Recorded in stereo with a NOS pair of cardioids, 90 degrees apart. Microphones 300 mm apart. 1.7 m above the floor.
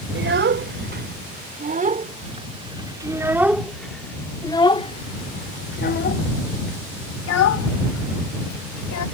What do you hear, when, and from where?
0.1 s a child speaking: 40° right; by 9.1 s 70° left